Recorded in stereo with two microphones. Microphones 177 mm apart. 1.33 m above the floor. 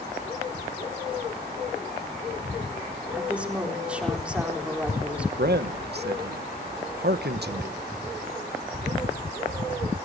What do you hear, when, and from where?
3.1 s a woman speaking: 5° right (ahead or behind), 4 m
5.4 s a man speaking: 70° right (ahead or behind), 1.5 m